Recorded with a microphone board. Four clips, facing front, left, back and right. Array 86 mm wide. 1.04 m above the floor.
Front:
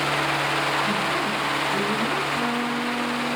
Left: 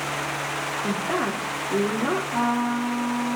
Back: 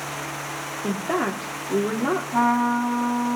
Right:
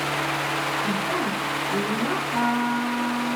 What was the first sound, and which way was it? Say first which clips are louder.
A woman speaking: even, even; 165° left.